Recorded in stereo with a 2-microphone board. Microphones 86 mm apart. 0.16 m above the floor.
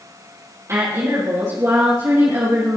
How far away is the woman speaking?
About 4.5 m.